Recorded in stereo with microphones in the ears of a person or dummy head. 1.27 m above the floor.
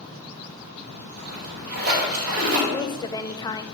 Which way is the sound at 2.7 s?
25° left (ahead or behind).